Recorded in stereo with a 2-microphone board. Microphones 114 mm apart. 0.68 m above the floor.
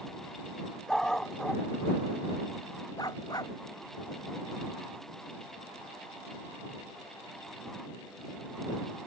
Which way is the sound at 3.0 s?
35° left (ahead or behind).